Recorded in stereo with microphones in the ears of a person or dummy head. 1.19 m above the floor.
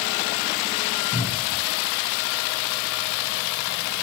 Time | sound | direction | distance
1.1 | a cupboard door | 25° left (ahead or behind) | 5.5 m